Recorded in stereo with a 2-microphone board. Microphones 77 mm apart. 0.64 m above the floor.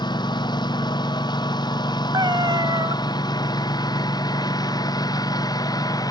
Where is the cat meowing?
75° right (ahead or behind).